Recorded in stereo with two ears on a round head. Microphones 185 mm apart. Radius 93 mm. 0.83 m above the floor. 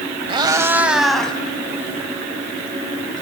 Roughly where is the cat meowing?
Right.